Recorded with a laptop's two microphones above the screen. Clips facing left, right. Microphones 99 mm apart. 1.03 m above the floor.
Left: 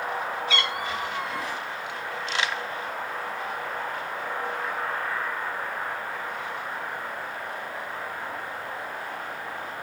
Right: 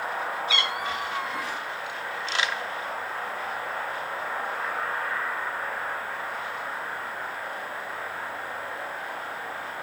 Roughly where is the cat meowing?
Centre.